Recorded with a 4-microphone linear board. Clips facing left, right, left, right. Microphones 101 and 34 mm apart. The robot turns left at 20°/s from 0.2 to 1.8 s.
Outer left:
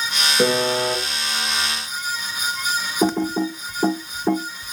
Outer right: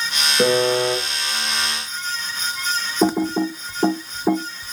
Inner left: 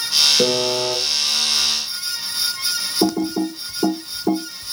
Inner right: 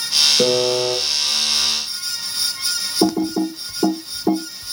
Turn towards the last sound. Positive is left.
turn(degrees=-5)  # may be behind; listen again after turning